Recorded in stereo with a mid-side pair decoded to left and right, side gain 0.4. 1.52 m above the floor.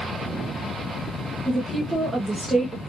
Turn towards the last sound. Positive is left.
turn(degrees=-30)